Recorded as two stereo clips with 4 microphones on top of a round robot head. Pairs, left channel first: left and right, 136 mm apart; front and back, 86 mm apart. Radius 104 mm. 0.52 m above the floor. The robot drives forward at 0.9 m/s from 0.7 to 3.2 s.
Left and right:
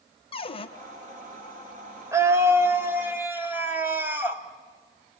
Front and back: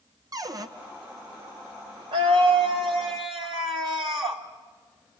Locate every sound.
0.3 s a cupboard door: 135° left, 1.7 m
2.1 s a scream: 160° right, 2 m; by 4.4 s 165° right, 3 m